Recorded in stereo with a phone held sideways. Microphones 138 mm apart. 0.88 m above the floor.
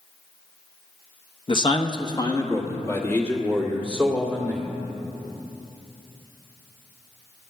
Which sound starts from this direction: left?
A man speaking, at 1.5 s.